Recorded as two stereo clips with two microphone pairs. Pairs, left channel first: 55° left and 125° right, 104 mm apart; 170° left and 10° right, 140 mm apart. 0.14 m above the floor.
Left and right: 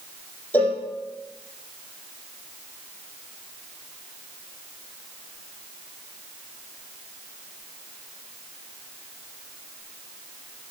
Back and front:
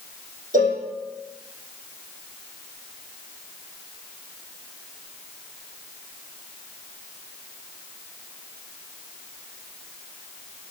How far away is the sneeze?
No sneeze in this recording.